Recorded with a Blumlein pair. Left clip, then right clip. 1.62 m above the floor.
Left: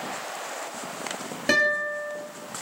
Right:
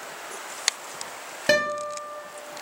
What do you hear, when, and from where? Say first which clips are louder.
1.5 s a guitar: left 1 dB; 5° right, 1.0 m